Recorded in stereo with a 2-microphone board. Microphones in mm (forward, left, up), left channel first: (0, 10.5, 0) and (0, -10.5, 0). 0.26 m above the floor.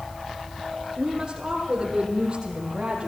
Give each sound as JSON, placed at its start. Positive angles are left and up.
{"t": 1.0, "sound": "a woman speaking", "side_deg": -40, "distance_m": 9.0}